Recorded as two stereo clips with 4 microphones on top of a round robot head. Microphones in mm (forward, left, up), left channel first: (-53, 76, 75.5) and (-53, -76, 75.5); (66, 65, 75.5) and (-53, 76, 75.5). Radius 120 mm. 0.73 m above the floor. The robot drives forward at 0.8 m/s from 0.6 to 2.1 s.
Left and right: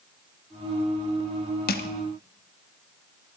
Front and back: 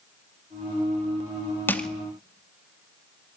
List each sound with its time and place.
1.7 s crushing: 70° left, 0.6 m; by 1.9 s 85° left, 0.6 m